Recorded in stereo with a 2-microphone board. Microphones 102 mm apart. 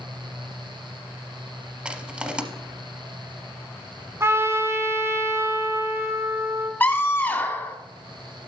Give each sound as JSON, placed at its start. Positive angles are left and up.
{"t": 1.9, "sound": "crushing", "side_deg": -10, "distance_m": 0.9}
{"t": 4.2, "sound": "a trumpet", "side_deg": -25, "distance_m": 1.6}
{"t": 6.8, "sound": "a scream", "side_deg": 20, "distance_m": 1.4}